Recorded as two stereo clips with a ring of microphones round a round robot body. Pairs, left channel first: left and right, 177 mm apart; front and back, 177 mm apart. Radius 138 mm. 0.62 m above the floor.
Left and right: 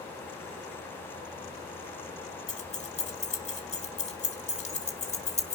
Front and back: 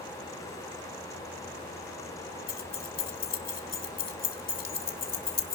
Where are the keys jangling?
35° left, 1.7 m.